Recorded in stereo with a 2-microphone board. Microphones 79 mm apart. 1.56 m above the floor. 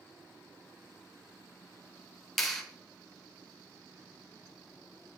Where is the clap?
Centre (ahead or behind), 0.8 m.